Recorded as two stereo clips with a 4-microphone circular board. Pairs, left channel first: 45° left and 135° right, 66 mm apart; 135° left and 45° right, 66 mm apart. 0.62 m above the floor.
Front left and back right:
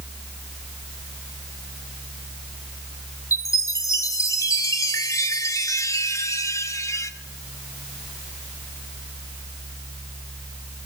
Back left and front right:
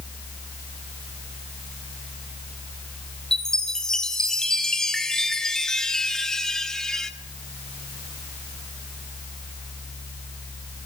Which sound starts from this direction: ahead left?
A chime, at 3.3 s.